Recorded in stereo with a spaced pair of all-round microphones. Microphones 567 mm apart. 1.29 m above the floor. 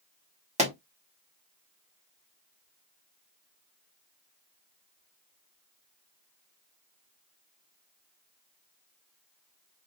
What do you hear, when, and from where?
0.6 s a pop: 10° right (ahead or behind), 1.3 m